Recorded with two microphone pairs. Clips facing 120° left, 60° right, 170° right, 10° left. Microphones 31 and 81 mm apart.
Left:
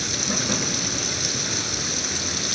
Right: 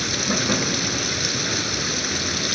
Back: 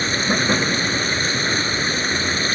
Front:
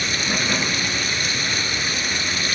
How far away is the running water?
About 1.6 m.